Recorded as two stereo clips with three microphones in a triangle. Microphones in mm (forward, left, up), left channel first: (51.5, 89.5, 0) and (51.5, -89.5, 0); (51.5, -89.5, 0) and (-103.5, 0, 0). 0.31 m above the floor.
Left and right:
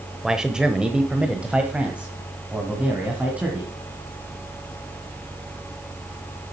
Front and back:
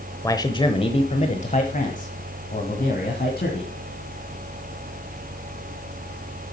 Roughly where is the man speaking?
Ahead.